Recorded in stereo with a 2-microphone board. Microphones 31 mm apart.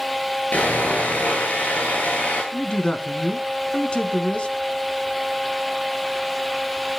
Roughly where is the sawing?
Left.